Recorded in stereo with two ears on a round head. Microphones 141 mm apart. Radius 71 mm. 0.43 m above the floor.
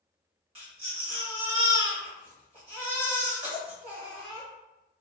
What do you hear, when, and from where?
0.6 s a baby crying: 40° right (ahead or behind), 1.3 m